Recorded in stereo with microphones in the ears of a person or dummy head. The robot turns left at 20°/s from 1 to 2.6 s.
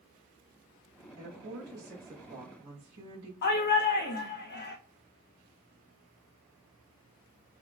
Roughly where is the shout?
Left.